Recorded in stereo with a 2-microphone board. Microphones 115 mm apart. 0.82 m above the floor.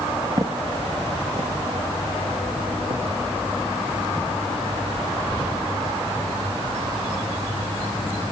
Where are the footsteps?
35° right (ahead or behind), 0.9 m; by 5.5 s 50° right (ahead or behind), 4 m.